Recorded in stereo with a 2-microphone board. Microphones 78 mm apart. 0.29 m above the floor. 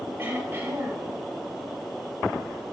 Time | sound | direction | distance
0.2 | throat clearing | 25° right (ahead or behind) | 6 m